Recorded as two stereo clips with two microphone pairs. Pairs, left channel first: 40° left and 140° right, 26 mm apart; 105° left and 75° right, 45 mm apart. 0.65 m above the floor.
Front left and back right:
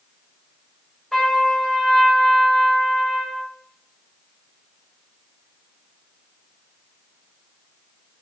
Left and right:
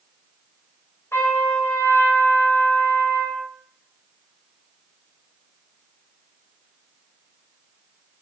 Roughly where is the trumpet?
Behind left.